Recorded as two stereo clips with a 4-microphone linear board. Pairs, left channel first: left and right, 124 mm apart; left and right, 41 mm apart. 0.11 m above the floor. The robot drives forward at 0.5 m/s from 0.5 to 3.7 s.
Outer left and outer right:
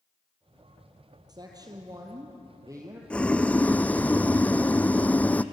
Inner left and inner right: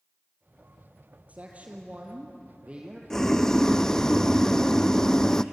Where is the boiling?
10° left (ahead or behind), 1.1 m.